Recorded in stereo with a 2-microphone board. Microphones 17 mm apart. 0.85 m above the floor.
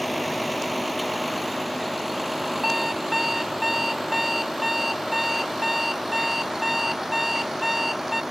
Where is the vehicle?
Centre (ahead or behind); by 8.3 s 20° right (ahead or behind).